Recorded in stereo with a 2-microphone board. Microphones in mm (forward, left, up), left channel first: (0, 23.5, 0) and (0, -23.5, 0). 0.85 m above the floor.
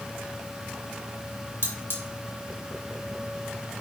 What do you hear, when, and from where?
1.6 s cutlery clinking: 50° left (ahead or behind), 0.8 m